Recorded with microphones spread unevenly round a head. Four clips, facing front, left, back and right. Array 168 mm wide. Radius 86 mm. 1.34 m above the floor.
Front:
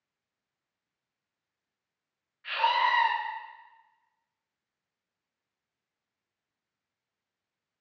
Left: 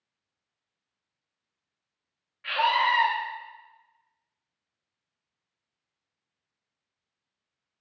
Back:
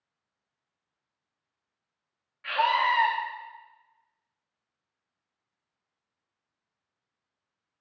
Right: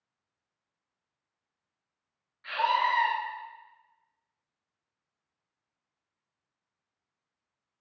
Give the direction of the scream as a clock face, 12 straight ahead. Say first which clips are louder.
Left 2 dB, back 2 dB; 7 o'clock.